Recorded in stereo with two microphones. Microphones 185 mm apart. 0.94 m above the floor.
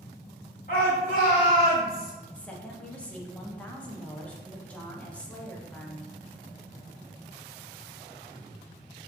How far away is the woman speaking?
About 0.6 m.